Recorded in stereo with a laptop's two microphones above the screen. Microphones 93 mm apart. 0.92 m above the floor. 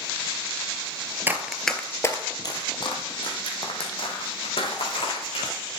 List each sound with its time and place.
1.3 s running footsteps: 20° right (ahead or behind), 0.9 m; by 5.5 s 80° left, 4.5 m